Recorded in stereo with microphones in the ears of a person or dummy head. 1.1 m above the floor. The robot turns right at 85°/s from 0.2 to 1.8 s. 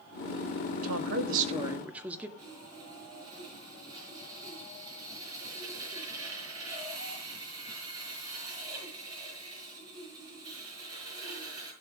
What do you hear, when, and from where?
0.8 s a woman speaking: 95° right, 1.6 m; by 2.3 s 10° right, 1.6 m
2.4 s sawing: 25° right (ahead or behind), 6 m